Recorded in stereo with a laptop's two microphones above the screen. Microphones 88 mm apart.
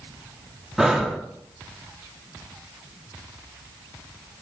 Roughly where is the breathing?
Centre.